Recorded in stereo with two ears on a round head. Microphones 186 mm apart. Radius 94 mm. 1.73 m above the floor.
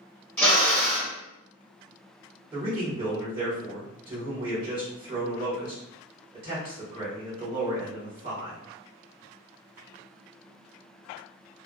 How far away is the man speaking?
About 1.3 m.